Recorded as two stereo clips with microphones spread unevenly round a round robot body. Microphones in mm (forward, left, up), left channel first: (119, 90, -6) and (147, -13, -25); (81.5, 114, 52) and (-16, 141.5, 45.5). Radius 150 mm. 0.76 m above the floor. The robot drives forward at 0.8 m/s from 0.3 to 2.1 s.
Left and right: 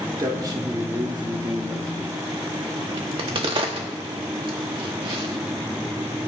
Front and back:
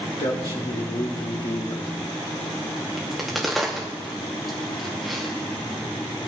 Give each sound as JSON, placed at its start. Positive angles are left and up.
{"t": 0.2, "sound": "a man speaking", "azimuth_deg": -30, "distance_m": 2.0}
{"t": 3.0, "sound": "a crack", "azimuth_deg": -110, "distance_m": 0.7}